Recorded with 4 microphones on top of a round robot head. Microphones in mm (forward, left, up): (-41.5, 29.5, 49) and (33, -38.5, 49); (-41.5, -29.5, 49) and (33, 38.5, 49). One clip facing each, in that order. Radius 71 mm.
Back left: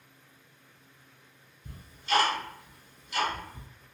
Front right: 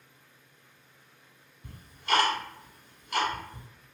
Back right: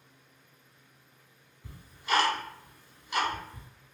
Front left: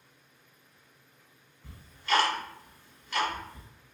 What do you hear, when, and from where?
1.6 s ticking: 65° right, 1.2 m